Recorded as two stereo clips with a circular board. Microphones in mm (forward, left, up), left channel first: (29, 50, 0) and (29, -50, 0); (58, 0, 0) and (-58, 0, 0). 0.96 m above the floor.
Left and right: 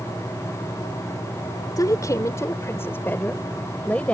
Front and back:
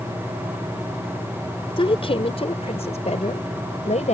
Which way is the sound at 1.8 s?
40° left.